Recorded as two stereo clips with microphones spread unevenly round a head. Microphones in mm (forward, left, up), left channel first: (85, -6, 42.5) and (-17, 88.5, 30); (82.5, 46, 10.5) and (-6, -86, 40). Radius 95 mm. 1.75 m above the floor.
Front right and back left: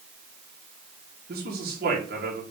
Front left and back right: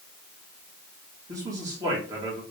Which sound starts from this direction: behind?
A man speaking, at 1.3 s.